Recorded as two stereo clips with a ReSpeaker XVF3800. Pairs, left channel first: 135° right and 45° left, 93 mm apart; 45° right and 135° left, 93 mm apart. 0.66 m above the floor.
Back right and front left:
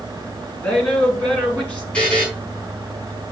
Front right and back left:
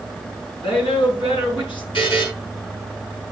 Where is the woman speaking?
65° right, 8.5 m.